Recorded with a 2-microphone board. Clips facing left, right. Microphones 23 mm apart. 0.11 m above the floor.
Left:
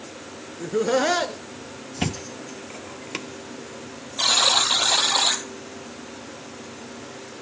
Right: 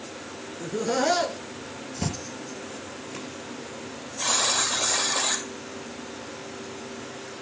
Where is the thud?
50° left (ahead or behind), 1.0 m.